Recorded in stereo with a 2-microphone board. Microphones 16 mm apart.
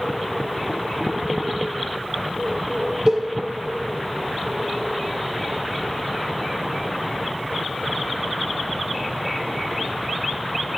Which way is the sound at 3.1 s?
35° right (ahead or behind).